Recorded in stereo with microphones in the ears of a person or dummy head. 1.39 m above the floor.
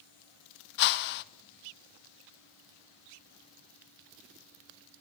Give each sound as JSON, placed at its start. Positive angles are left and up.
{"t": 0.8, "sound": "a whoosh", "side_deg": 60, "distance_m": 0.7}